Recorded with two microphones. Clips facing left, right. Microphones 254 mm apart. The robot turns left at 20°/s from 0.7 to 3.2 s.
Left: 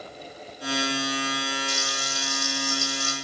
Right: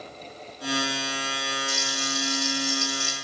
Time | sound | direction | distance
1.7 | frying | 35° right (ahead or behind) | 2 m